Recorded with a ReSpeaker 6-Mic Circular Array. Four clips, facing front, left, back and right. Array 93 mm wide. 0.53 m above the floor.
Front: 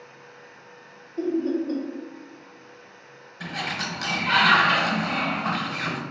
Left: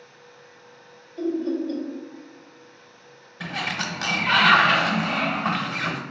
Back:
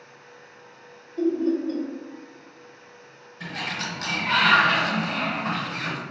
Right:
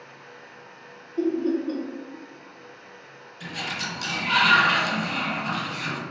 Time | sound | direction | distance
1.2 | laughter | 80° right | 1.1 m
3.4 | a sliding door | 80° left | 0.6 m